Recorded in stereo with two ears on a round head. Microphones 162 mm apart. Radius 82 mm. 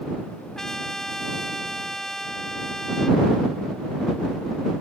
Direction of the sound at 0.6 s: Centre (ahead or behind).